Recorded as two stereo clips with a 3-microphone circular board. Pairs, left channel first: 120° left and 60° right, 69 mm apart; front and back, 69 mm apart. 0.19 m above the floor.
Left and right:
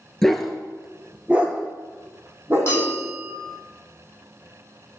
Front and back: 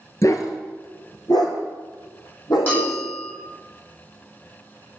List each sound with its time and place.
0.2 s a dog barking: 35° left, 1.1 m; by 3.0 s 5° right, 2.5 m
2.7 s a bell: 65° left, 5 m